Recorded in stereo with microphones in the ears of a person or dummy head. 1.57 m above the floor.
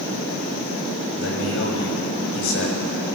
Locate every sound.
1.2 s a man speaking: 75° left (ahead or behind), 7 m